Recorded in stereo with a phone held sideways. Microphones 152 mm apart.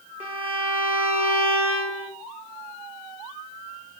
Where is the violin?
10° right (ahead or behind), 0.9 m.